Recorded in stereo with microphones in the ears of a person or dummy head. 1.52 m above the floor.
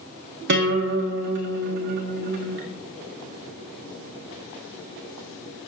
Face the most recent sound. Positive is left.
turn(degrees=-60)  # may be behind; listen again after turning